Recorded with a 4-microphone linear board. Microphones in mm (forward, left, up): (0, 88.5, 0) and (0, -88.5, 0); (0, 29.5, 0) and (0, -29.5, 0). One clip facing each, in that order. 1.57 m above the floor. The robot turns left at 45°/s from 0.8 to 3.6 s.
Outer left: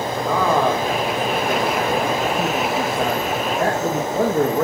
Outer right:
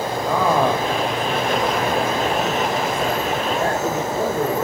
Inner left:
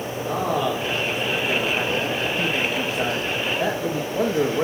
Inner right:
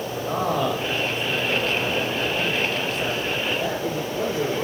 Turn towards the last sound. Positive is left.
turn(degrees=65)